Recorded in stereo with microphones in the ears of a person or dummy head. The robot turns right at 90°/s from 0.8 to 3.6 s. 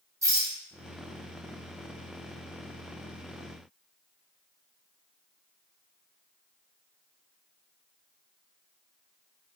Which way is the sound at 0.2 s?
20° right (ahead or behind).